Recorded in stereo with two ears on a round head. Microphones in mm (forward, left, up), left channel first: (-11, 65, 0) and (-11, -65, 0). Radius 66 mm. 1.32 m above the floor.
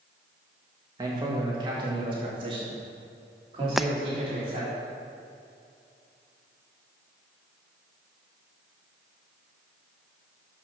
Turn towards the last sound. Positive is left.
turn(degrees=0)  # may be behind; listen again after turning